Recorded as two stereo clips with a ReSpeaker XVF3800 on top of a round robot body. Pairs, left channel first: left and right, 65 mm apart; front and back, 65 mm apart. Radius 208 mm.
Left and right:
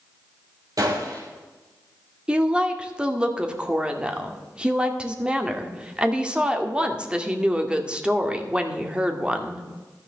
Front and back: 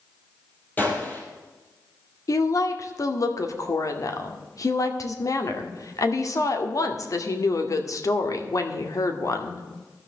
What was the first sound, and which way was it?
A gunshot, 65° right.